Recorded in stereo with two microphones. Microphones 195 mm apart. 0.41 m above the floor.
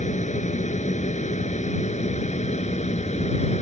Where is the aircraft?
35° left (ahead or behind).